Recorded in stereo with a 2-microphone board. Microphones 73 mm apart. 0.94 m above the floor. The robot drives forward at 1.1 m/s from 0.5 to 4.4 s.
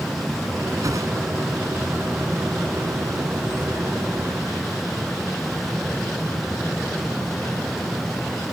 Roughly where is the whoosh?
Right.